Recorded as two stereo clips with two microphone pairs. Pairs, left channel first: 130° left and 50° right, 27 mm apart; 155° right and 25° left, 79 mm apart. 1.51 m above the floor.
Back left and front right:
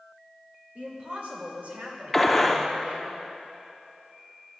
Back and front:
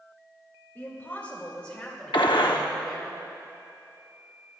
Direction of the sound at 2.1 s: 150° right.